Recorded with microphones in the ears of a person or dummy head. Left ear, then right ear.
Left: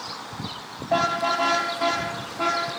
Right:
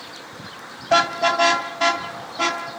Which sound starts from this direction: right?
A car horn, at 0.9 s.